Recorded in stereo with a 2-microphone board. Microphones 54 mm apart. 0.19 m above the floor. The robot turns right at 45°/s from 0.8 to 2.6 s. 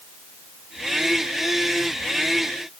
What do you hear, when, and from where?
Only background noise.